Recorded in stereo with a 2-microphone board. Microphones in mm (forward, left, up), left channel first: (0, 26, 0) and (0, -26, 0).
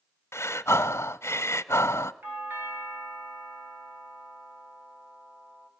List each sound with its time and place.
0.3 s breathing: 60° left (ahead or behind), 0.6 m
2.2 s a doorbell: 40° right (ahead or behind), 3 m